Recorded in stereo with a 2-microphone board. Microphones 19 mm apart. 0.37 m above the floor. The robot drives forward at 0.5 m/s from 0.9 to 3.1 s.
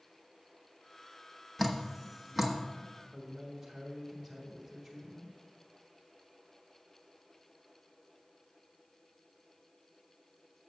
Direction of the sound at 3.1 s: 5° right (ahead or behind).